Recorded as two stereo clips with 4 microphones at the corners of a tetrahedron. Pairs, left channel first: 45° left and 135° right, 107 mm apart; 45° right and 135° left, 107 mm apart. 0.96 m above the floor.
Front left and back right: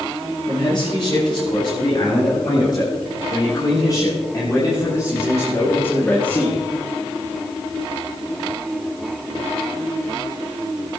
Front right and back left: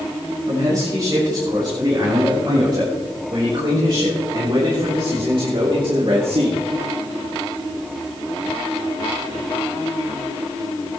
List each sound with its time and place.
0.5 s a man speaking: 85° left, 6 m; by 6.6 s 120° left, 2.5 m